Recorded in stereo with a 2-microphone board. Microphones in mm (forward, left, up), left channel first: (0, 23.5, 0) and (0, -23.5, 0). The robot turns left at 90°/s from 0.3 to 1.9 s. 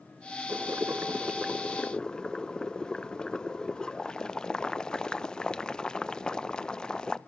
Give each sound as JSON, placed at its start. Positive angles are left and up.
{"t": 0.5, "sound": "boiling", "azimuth_deg": -75, "distance_m": 0.8}